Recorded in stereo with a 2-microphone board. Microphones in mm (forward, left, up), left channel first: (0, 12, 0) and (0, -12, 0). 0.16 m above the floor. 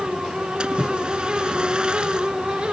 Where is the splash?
40° right (ahead or behind).